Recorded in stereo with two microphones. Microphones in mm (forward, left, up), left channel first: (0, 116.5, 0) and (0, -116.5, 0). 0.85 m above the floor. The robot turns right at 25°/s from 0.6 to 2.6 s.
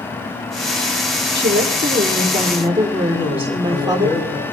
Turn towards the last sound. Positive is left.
turn(degrees=70)  # may be behind; listen again after turning